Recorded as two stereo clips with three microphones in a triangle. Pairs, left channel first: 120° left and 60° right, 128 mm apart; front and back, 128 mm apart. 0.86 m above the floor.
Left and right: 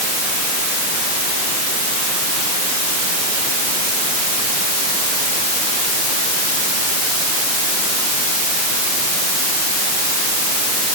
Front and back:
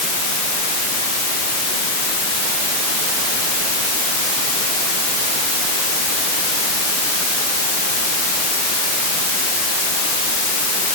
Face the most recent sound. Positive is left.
No sound to turn to.